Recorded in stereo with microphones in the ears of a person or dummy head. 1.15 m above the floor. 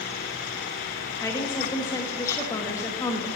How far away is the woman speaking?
About 1.5 m.